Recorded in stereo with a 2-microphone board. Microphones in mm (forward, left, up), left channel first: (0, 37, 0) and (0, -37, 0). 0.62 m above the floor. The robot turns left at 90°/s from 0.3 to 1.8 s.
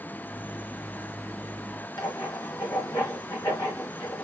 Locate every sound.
2.0 s writing: 70° left (ahead or behind), 3 m